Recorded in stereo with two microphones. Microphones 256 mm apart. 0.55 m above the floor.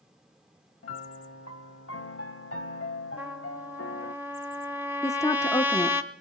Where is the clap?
I don't hear a clap.